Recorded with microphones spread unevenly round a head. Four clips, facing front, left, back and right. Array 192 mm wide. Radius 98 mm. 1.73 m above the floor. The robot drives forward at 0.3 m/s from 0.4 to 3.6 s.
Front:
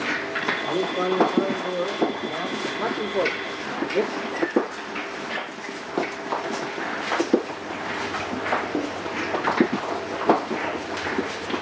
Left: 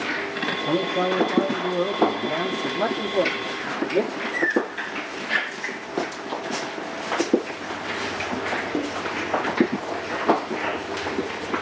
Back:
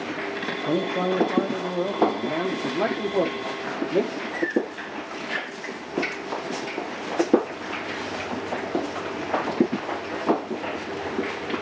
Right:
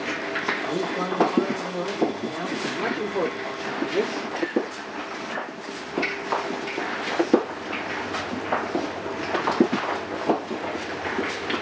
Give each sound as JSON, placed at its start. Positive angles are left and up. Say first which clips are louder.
{"t": 0.7, "sound": "a man speaking", "louder": "left 7 dB, back 1 dB", "azimuth_deg": 135, "distance_m": 1.0}